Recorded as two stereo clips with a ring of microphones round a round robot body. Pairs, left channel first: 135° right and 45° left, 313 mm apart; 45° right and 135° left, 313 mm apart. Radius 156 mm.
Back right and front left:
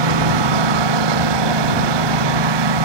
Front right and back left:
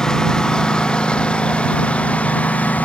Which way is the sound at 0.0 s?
40° left.